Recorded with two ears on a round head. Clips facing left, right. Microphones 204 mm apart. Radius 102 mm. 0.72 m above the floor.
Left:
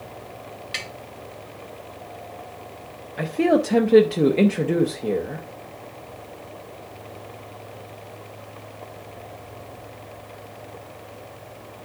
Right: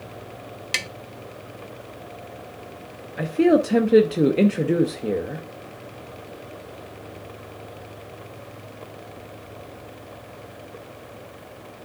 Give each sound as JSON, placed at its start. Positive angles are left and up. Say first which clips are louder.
{"t": 0.7, "sound": "tapping", "louder": "right 2 dB", "side_deg": -60, "distance_m": 0.8}
{"t": 3.2, "sound": "a man speaking", "louder": "right 2 dB", "side_deg": -5, "distance_m": 0.6}